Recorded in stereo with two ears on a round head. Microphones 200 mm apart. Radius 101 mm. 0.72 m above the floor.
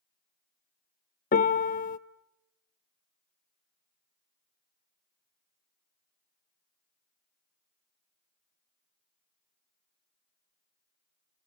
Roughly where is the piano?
Left.